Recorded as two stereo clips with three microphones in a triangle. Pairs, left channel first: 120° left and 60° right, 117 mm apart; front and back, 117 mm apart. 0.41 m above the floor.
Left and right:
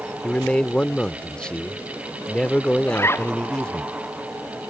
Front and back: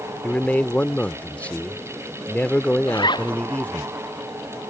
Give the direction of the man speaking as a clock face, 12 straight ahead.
10 o'clock.